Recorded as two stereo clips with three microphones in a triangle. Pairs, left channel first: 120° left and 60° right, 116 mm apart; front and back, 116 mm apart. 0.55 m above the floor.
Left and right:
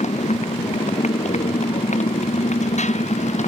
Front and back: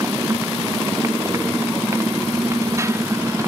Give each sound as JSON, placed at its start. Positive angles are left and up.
{"t": 0.0, "sound": "a motorcycle", "azimuth_deg": 115}